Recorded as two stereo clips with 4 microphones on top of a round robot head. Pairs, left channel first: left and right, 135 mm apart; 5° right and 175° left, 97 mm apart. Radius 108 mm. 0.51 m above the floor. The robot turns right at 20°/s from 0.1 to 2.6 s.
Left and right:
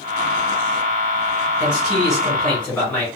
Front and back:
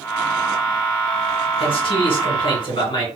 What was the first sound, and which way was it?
A man speaking, 10° right.